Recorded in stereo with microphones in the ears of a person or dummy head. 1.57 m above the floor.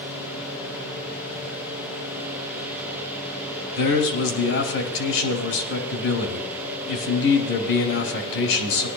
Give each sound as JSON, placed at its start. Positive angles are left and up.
{"t": 3.8, "sound": "a man speaking", "side_deg": 80, "distance_m": 2.5}